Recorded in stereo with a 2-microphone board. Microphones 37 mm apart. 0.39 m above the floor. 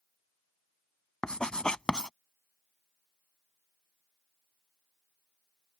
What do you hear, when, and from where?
1.2 s writing: 25° left (ahead or behind)